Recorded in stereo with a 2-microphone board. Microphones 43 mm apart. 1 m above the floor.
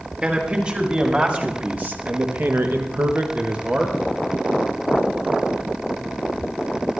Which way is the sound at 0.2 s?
30° right (ahead or behind).